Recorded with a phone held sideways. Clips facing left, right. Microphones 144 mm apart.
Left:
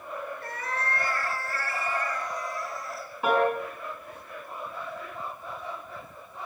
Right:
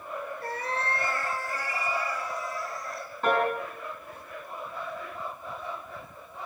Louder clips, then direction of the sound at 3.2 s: Left 2 dB; 10° left (ahead or behind).